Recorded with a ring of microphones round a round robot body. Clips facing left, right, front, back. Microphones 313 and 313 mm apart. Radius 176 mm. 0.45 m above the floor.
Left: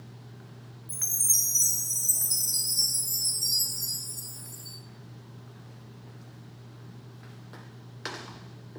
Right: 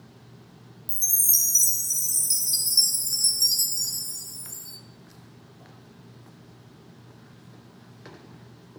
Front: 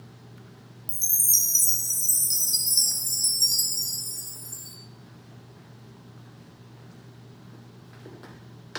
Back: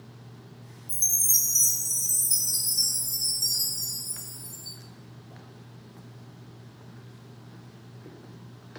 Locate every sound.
0.9 s a chime: 35° right, 1.9 m